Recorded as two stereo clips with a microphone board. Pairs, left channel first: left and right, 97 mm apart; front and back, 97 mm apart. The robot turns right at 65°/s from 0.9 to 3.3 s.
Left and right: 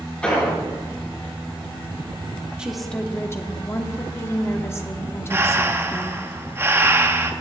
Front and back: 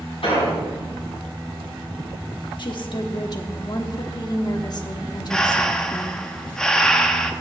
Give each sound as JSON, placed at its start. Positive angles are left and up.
{"t": 0.2, "sound": "an explosion", "azimuth_deg": 10, "distance_m": 5.0}
{"t": 2.6, "sound": "a woman speaking", "azimuth_deg": -15, "distance_m": 1.1}
{"t": 5.3, "sound": "breathing", "azimuth_deg": -75, "distance_m": 0.7}